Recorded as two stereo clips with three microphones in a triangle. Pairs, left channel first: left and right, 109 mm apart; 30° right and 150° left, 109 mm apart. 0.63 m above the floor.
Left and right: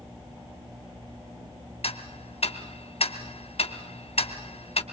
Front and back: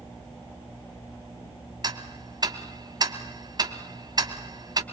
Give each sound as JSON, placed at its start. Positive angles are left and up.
{"t": 1.8, "sound": "ticking", "azimuth_deg": 100, "distance_m": 1.4}